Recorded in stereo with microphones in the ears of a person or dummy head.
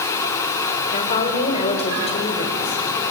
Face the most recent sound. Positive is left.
turn(degrees=35)  # may be behind; listen again after turning